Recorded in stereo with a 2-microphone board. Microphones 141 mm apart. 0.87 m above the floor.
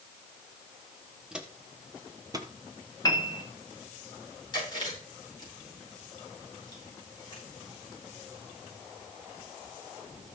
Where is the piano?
25° left (ahead or behind), 1.7 m.